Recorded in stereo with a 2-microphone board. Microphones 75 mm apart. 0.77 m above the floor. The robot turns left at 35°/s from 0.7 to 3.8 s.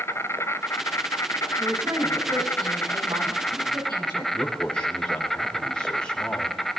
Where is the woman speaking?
25° right, 5.5 m; by 4.2 s 105° right, 5.5 m.